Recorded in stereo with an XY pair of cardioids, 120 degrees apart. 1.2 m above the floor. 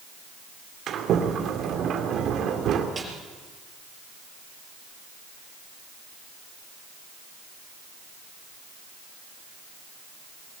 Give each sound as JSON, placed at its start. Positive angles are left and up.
{"t": 0.9, "sound": "a sliding door", "azimuth_deg": -55, "distance_m": 2.5}
{"t": 3.0, "sound": "a snare drum", "azimuth_deg": -20, "distance_m": 5.0}